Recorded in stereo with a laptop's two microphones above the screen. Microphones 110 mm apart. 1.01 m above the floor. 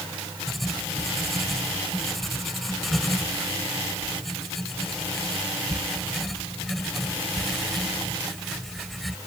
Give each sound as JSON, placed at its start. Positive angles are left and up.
{"t": 0.5, "sound": "writing", "side_deg": 0}